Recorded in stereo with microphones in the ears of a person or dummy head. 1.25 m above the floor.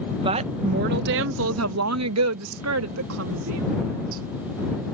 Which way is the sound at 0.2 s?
25° right (ahead or behind).